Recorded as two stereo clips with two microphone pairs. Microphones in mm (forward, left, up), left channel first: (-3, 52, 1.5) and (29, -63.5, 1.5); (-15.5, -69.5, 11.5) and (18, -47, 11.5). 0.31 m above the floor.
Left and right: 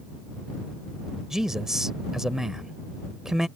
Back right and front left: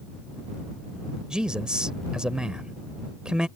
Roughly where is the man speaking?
Ahead.